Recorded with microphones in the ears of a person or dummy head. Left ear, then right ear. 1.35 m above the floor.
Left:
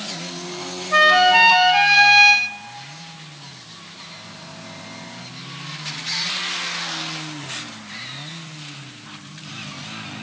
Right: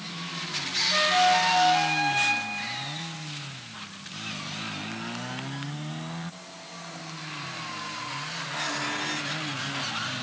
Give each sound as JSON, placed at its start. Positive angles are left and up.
{"t": 0.9, "sound": "a flute", "side_deg": 50, "distance_m": 0.6}